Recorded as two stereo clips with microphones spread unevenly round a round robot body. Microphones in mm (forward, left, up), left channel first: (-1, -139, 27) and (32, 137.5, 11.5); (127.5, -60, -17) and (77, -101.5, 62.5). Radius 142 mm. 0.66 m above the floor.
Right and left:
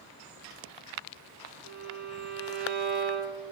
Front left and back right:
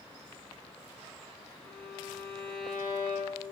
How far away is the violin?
About 0.7 m.